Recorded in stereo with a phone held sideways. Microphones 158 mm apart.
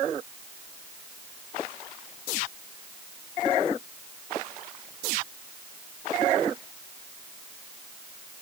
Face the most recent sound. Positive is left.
No sound to turn to.